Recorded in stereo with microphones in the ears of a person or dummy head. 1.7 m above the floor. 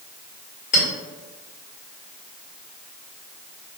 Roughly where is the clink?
Left.